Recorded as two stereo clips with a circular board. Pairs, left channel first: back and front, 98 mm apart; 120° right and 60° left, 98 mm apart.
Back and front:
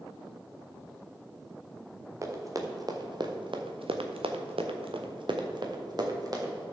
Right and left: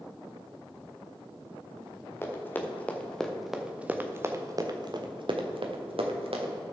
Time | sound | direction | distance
2.2 | running footsteps | 55° right | 2 m